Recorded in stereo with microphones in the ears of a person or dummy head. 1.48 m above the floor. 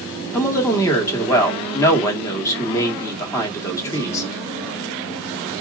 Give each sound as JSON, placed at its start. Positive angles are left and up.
{"t": 0.3, "sound": "a woman speaking", "side_deg": 15, "distance_m": 1.5}